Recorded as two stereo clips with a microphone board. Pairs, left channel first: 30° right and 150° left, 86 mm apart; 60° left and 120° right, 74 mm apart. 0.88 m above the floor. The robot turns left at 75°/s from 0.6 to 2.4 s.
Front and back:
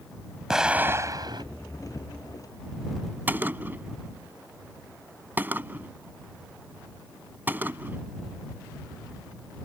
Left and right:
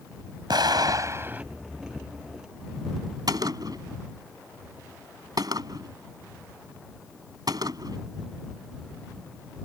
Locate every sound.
0.5 s an explosion: 125° right; by 1.4 s 170° left
3.3 s a gunshot: 140° right